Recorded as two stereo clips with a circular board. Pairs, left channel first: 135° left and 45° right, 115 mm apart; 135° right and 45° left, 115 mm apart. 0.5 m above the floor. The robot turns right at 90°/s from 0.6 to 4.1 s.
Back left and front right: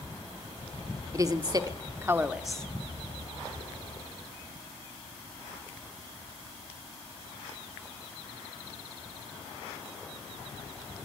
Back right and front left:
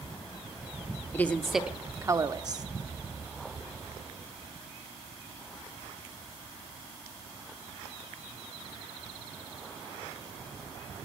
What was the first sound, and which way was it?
A woman speaking, 80° right.